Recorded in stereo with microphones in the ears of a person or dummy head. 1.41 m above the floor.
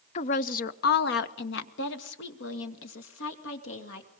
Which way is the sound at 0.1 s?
35° left (ahead or behind).